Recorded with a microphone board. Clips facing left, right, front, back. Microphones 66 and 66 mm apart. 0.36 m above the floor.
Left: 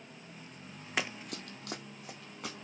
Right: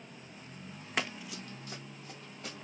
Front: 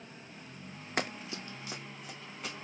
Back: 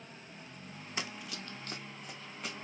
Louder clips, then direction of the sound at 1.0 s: Even, front 6 dB; straight ahead.